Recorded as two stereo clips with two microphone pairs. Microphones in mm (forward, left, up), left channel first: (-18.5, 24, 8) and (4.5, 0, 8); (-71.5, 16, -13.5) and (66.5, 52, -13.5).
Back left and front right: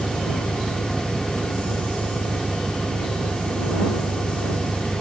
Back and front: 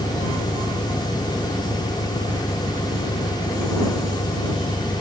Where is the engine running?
120° right.